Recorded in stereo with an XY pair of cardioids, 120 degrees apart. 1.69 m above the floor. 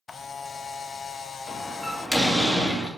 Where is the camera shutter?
30° left, 0.9 m.